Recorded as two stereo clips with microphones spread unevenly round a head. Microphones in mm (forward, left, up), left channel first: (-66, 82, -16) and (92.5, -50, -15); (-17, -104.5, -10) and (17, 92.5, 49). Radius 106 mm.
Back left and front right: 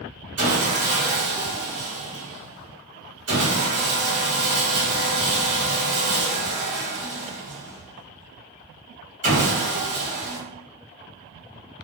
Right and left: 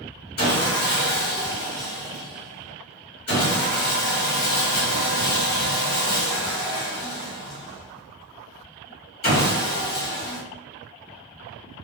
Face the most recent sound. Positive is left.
turn(degrees=-50)